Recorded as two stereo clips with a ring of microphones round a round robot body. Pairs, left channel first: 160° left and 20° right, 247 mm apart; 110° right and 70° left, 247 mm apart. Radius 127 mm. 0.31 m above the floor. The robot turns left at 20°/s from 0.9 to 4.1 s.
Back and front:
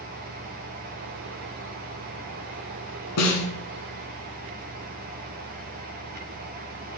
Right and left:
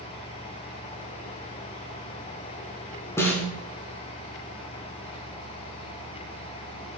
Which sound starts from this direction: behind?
A snare drum, at 3.2 s.